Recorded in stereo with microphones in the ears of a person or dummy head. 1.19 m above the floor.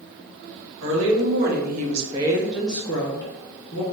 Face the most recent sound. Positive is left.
turn(degrees=35)  # may be behind; listen again after turning